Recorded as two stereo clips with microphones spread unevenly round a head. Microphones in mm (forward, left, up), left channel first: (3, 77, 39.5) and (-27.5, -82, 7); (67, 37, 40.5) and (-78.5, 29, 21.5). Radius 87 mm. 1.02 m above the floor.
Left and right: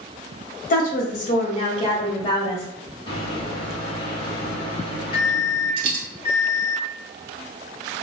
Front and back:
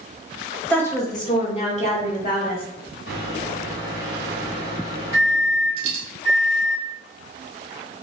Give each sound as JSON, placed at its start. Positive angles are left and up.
{"t": 0.7, "sound": "a woman speaking", "azimuth_deg": 90, "distance_m": 0.8}
{"t": 3.1, "sound": "a microwave", "azimuth_deg": 15, "distance_m": 1.0}
{"t": 5.8, "sound": "a dropped coin", "azimuth_deg": -150, "distance_m": 1.0}